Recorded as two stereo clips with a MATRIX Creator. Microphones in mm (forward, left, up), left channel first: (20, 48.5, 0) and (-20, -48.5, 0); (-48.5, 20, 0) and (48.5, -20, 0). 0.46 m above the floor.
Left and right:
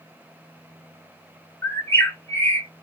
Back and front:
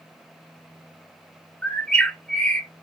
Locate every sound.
1.6 s a bird: 95° left, 0.9 m